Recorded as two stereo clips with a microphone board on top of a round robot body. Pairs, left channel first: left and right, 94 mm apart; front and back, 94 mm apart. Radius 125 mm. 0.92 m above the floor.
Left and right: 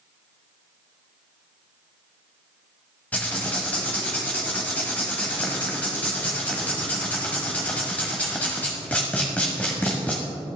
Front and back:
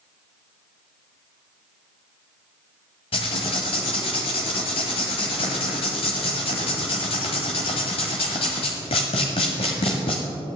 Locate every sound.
3.1 s writing: 20° left, 0.9 m